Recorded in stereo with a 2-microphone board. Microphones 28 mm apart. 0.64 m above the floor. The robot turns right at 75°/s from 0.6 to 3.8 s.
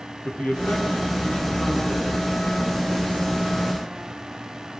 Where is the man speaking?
70° left, 7.5 m; by 2.3 s 165° right, 7.5 m.